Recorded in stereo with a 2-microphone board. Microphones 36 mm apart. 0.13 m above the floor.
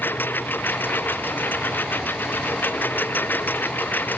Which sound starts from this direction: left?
A lawn mower, at 0.0 s.